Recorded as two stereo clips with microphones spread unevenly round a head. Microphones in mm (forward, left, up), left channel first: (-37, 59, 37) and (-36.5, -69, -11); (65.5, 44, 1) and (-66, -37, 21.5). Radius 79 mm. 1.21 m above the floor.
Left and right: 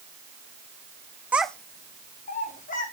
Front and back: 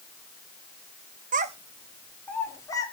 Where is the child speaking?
175° right, 0.9 m; by 2.9 s 100° left, 2 m.